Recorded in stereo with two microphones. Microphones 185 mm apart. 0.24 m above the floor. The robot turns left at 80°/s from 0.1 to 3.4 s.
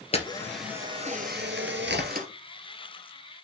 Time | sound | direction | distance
0.1 | a camera shutter | 35° left | 2 m